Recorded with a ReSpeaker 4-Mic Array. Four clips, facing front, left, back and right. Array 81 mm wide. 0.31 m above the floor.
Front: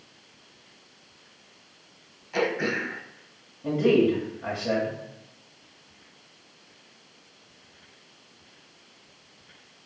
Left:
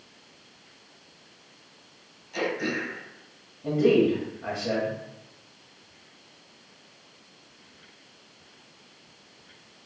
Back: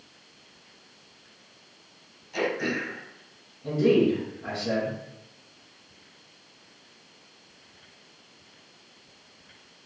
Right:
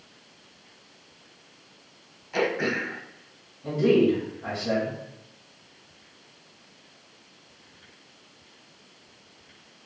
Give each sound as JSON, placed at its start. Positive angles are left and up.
{"t": 2.3, "sound": "throat clearing", "azimuth_deg": -45, "distance_m": 0.9}
{"t": 3.6, "sound": "a man speaking", "azimuth_deg": 20, "distance_m": 1.7}